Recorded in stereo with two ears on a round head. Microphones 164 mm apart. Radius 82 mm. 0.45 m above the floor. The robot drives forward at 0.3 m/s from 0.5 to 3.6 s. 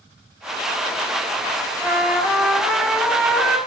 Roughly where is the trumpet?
Centre.